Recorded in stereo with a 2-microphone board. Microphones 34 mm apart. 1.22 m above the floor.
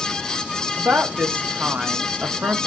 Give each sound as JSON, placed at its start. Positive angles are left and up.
{"t": 0.8, "sound": "a woman speaking", "side_deg": -80, "distance_m": 1.0}